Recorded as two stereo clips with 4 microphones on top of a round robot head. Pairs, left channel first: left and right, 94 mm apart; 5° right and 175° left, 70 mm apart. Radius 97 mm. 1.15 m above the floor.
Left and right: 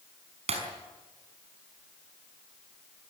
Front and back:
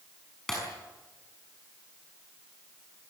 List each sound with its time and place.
0.5 s breaking glass: 90° right, 5.5 m